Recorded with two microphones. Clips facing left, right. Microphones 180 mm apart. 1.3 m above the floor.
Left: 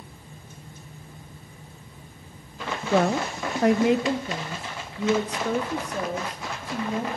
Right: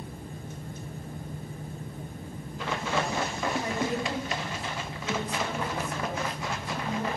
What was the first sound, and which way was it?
A woman speaking, 55° left (ahead or behind).